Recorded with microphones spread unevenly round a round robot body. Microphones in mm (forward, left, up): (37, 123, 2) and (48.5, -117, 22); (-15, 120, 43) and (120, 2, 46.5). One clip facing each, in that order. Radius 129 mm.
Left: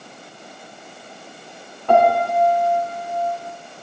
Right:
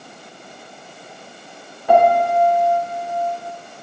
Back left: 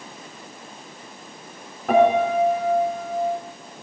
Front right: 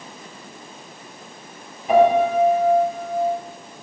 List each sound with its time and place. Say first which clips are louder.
1.9 s a piano: right 2 dB, front right 2 dB; 170° right, 1.9 m